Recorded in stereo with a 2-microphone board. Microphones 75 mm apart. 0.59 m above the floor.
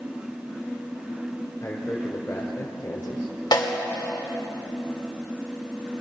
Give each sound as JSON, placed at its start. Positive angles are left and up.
{"t": 1.6, "sound": "a man speaking", "side_deg": 35, "distance_m": 1.7}
{"t": 3.5, "sound": "a snare drum", "side_deg": 65, "distance_m": 1.5}